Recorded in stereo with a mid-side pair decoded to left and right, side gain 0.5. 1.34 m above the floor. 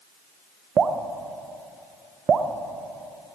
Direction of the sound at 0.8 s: 45° right.